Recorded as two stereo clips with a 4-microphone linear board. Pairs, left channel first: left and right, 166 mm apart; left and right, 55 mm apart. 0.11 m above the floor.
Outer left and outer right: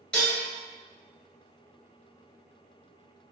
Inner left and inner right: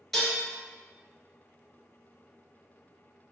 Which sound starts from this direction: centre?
Dishes clattering, at 0.1 s.